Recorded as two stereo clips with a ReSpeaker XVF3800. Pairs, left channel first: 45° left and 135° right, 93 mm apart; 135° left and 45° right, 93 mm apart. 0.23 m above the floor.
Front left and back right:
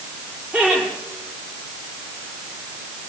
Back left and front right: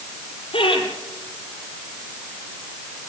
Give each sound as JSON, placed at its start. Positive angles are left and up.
{"t": 0.5, "sound": "laughter", "azimuth_deg": 150, "distance_m": 8.0}